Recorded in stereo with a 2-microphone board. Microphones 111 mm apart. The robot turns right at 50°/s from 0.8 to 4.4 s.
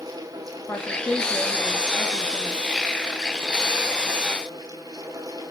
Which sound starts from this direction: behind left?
A woman speaking, at 0.7 s.